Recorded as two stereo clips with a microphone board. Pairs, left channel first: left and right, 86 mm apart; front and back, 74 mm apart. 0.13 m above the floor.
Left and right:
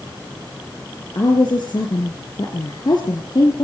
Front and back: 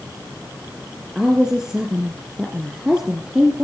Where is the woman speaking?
100° left, 3 m.